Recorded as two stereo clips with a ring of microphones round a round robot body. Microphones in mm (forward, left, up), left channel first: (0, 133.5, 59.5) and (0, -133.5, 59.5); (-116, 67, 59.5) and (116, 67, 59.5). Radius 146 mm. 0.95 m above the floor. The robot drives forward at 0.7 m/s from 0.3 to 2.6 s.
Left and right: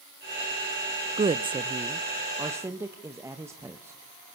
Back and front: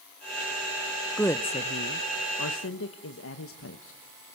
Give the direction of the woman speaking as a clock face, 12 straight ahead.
3 o'clock.